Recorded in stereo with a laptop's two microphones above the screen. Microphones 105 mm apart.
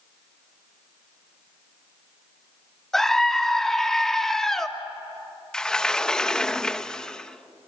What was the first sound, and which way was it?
A scream, 5° left (ahead or behind).